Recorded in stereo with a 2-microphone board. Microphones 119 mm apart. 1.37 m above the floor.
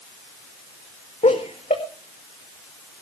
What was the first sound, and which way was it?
Laughter, 70° left (ahead or behind).